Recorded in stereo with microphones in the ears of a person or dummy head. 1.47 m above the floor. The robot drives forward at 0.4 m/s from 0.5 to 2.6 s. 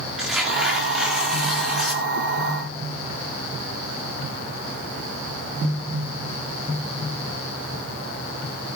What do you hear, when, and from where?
0.2 s tearing paper: centre (ahead or behind), 2 m